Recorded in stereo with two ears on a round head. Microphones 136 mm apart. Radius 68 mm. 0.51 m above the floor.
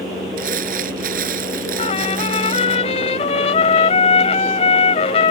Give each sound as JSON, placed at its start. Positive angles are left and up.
{"t": 0.4, "sound": "crumpling", "side_deg": -65}
{"t": 1.8, "sound": "a trumpet", "side_deg": 40}